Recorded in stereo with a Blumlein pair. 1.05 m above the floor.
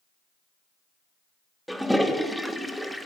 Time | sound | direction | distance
1.7 | a toilet flushing | straight ahead | 0.7 m